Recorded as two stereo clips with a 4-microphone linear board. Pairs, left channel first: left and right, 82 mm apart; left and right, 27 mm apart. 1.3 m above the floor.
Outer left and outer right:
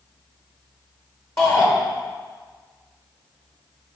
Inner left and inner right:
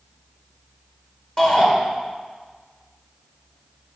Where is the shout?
30° left (ahead or behind), 1.6 m.